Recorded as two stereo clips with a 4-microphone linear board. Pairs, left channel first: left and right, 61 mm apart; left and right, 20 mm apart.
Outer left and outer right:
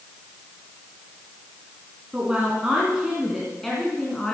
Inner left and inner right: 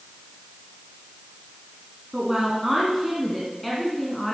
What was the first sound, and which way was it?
A woman speaking, 20° right (ahead or behind).